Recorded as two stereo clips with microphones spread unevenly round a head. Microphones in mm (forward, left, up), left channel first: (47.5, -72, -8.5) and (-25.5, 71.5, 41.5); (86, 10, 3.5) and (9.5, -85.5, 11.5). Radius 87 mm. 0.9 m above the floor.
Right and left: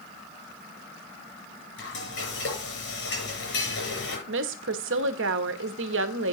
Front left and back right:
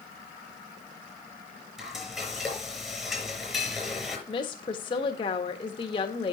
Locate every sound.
1.8 s frying: 40° right, 7.5 m
4.3 s a woman speaking: 105° left, 1.3 m